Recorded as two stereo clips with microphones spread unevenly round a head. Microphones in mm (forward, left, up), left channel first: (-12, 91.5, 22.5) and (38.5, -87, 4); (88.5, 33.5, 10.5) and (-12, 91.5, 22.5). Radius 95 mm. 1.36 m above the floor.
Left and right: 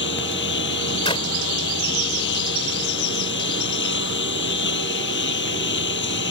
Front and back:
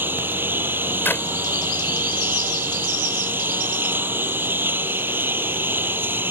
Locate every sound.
0.0 s a lawn mower: 80° left
1.1 s a clap: 40° left